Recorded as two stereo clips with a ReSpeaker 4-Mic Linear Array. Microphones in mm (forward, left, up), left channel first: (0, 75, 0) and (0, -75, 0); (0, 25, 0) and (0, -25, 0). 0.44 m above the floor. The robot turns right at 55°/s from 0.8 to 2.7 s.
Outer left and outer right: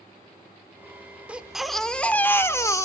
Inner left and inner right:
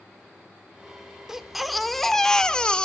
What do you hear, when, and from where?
1.3 s a baby crying: 10° right (ahead or behind), 0.9 m; by 2.9 s 20° left (ahead or behind), 0.9 m